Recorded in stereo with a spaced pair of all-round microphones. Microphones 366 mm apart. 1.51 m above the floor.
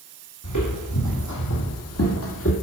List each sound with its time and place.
0.4 s footsteps: 55° left (ahead or behind), 2.5 m; by 2.5 s 35° left (ahead or behind), 1.8 m